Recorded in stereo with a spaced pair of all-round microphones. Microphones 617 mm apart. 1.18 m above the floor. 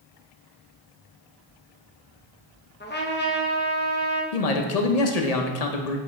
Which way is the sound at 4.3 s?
75° left (ahead or behind).